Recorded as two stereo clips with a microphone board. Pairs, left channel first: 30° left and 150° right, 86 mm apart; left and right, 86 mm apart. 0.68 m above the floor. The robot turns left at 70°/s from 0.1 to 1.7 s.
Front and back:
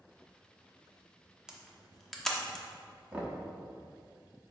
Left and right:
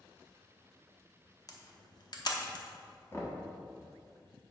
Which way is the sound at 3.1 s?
140° left.